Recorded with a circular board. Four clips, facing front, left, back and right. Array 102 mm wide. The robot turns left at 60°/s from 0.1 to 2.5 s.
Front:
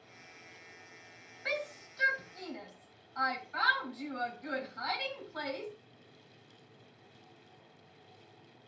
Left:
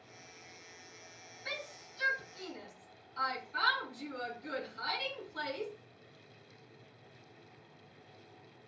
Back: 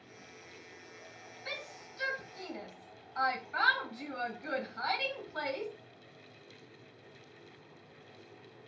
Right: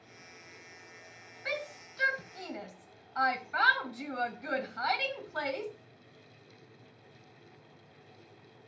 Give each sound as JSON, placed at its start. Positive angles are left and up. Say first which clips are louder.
{"t": 1.4, "sound": "a shout", "louder": "right 7 dB, front 8 dB", "azimuth_deg": -40, "distance_m": 2.0}